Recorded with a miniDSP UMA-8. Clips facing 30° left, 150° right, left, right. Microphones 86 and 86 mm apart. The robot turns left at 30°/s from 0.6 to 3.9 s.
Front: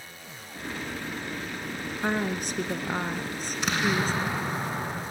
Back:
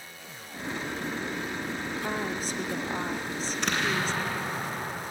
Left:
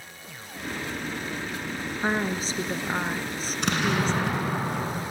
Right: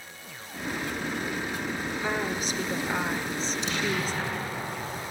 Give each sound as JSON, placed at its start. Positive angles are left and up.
{"t": 2.0, "sound": "a woman speaking", "azimuth_deg": 50, "distance_m": 3.0}
{"t": 3.5, "sound": "an explosion", "azimuth_deg": 115, "distance_m": 9.0}